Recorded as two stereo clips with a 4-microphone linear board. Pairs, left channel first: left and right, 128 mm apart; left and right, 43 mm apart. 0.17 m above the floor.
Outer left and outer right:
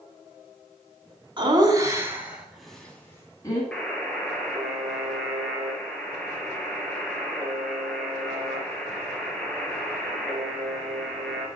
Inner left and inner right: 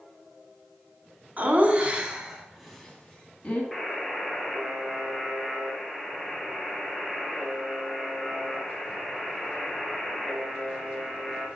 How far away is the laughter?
About 1.5 m.